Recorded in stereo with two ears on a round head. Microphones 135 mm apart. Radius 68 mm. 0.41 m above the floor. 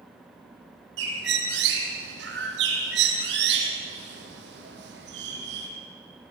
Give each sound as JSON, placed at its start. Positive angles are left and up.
{"t": 1.0, "sound": "a bird", "side_deg": -85, "distance_m": 3.5}